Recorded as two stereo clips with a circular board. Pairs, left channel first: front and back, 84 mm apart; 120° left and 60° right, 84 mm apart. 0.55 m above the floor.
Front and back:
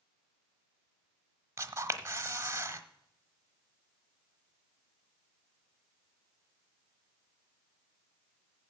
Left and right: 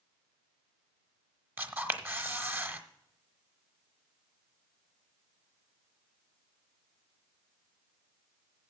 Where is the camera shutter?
125° right, 1.0 m.